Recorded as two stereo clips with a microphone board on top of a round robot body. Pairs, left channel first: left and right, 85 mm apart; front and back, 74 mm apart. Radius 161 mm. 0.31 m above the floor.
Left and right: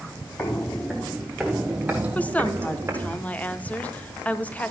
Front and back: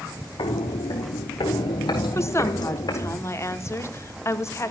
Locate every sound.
0.4 s footsteps: 25° left, 0.9 m; by 3.1 s 30° right, 1.7 m
2.1 s a woman speaking: 25° left, 1.3 m